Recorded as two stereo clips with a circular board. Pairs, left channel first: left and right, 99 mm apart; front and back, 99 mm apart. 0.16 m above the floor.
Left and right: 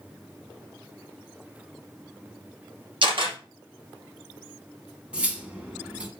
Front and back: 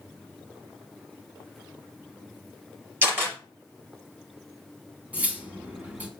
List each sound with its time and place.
3.0 s a camera shutter: 115° right, 3 m
5.1 s cutlery clinking: 145° right, 0.9 m